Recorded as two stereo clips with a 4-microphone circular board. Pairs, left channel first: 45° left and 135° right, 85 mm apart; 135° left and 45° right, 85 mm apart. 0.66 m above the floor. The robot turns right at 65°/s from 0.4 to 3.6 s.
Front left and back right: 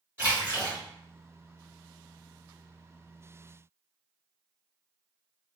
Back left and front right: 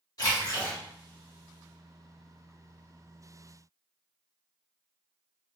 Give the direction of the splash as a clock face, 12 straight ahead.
6 o'clock.